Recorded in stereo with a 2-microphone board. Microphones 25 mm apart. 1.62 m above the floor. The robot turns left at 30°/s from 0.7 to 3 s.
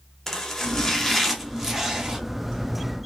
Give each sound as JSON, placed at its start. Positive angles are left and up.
{"t": 0.3, "sound": "chopping", "azimuth_deg": 25, "distance_m": 1.2}